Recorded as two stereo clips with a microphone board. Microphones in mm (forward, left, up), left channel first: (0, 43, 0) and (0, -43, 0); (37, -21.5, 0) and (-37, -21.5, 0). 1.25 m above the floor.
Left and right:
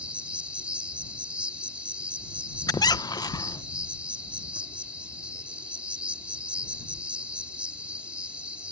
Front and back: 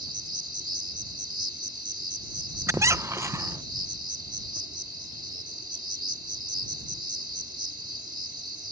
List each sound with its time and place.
0.0 s an insect: 165° right
2.7 s a squeak: 130° left